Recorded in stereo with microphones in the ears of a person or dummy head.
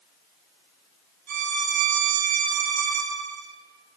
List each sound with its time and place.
1.3 s a violin: 60° right (ahead or behind), 4.5 m